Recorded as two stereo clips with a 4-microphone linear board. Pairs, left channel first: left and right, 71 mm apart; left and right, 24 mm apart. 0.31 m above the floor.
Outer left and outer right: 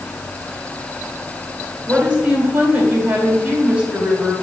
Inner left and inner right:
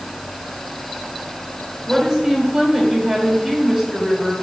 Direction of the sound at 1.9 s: 20° right (ahead or behind).